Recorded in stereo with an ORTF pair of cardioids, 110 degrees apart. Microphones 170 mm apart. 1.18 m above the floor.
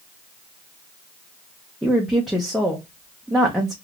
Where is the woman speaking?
Straight ahead, 0.7 m.